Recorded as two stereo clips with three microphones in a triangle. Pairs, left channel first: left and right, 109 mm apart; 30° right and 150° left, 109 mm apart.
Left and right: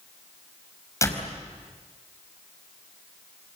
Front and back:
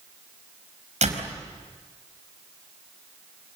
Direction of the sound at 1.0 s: 155° left.